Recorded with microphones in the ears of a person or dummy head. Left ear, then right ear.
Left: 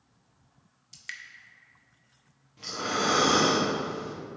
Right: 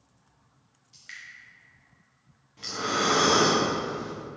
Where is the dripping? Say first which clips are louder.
Left 3 dB; 45° left (ahead or behind), 0.6 m.